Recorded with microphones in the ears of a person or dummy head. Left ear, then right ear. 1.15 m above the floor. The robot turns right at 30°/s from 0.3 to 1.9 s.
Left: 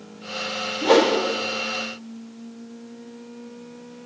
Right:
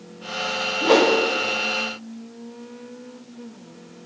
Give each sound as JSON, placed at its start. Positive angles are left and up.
{"t": 0.8, "sound": "a whoosh", "side_deg": 5, "distance_m": 0.5}